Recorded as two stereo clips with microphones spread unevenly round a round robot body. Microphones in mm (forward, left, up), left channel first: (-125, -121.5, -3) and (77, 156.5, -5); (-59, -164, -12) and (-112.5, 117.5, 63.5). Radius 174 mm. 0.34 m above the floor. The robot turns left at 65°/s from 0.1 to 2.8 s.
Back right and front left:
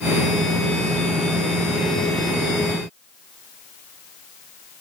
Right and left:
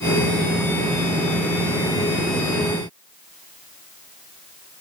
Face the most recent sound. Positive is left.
No sound to turn to.